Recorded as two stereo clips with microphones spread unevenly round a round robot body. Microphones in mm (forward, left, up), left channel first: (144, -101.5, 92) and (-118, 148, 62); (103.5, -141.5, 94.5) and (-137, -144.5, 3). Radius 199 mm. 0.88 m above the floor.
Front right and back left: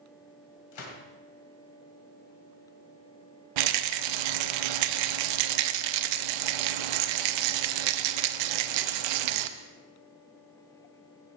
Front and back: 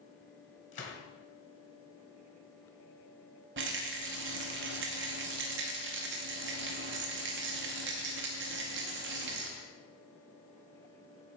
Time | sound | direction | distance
0.7 | a gunshot | 30° right | 2 m
3.6 | a rattle | 135° left | 0.6 m